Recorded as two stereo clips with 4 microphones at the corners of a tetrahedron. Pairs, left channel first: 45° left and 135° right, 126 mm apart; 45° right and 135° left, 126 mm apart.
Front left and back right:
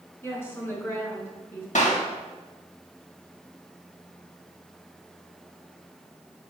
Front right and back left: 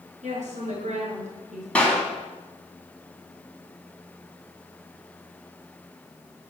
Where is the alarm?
No alarm in this recording.